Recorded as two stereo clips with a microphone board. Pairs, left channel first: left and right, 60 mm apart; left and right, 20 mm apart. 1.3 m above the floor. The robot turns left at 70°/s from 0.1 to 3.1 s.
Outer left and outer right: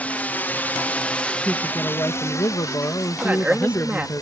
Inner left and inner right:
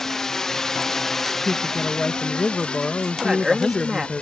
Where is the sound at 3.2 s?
20° right (ahead or behind).